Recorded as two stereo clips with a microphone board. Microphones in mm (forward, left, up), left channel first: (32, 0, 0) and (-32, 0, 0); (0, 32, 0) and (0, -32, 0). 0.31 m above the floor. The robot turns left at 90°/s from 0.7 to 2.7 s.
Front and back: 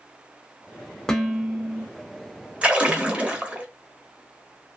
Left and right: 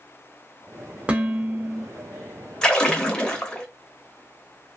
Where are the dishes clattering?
60° right, 0.6 m; by 1.9 s 130° right, 0.6 m.